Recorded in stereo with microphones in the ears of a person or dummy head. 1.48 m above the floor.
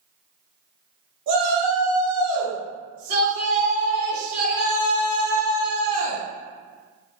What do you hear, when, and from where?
1.3 s a shout: 70° right (ahead or behind), 1.9 m; by 6.2 s 45° right (ahead or behind), 4.5 m